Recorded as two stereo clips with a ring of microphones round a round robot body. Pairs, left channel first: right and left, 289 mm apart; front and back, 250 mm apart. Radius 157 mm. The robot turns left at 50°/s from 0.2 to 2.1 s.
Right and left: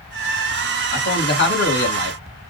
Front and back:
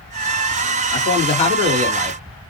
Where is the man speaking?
30° right, 1.7 m; by 2.2 s 90° right, 1.7 m.